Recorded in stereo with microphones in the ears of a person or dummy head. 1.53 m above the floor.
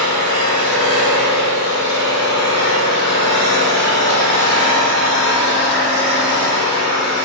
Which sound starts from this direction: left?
An engine running, at 0.0 s.